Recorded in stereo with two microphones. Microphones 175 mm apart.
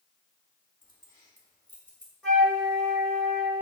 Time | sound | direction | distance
0.8 | keys jangling | 30° left (ahead or behind) | 1.6 m
2.2 | a flute | 5° left (ahead or behind) | 3 m